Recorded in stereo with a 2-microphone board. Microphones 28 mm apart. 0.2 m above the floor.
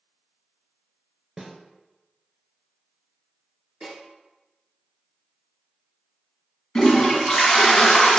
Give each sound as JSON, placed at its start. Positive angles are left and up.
{"t": 1.4, "sound": "a snare drum", "side_deg": -10, "distance_m": 0.6}
{"t": 3.8, "sound": "a snare drum", "side_deg": -30, "distance_m": 2.0}
{"t": 6.8, "sound": "a toilet flushing", "side_deg": 20, "distance_m": 0.9}